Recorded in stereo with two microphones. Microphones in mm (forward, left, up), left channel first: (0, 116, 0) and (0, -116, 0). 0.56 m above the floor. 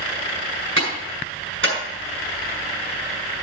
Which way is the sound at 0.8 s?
60° right (ahead or behind).